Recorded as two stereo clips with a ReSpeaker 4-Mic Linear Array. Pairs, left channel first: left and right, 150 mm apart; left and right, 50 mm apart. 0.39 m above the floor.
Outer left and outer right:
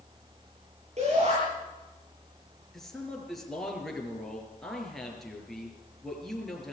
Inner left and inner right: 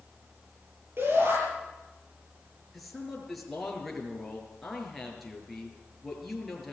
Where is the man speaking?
Centre (ahead or behind), 6 m.